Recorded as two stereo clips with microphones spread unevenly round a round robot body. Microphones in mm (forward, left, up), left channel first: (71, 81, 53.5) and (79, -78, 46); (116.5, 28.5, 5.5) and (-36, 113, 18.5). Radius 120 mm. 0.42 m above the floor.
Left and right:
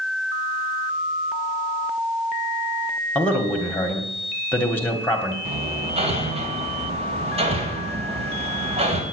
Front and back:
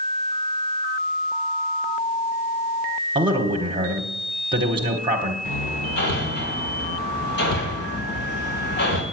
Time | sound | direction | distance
3.1 | a man speaking | 165° left | 1.4 m
5.5 | hammering | 40° right | 2.5 m